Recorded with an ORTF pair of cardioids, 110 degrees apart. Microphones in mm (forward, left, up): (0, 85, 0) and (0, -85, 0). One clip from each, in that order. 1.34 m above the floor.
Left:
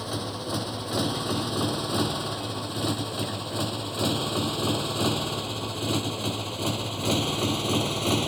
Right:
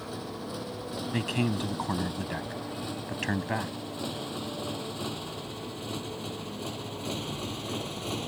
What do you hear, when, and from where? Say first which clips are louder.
0.0 s a motorcycle: left 6 dB; 65° left; by 8.3 s 55° left
1.1 s a man speaking: left 3 dB; 65° right